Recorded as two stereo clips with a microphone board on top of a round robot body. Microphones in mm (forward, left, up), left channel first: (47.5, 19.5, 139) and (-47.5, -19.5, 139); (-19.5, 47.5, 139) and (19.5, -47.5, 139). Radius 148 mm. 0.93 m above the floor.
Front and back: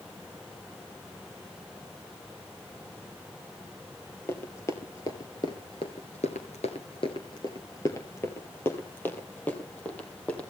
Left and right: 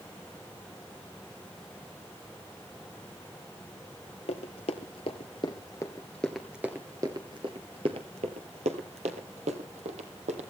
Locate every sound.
4.3 s running footsteps: 90° left, 1.5 m; by 10.4 s 55° right, 2.5 m